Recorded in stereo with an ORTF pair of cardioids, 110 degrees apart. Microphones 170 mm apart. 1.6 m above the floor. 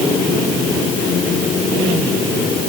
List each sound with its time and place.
Only background noise.